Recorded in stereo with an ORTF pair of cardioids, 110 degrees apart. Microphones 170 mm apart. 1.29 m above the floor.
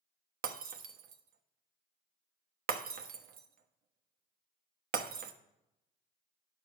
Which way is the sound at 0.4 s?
65° right.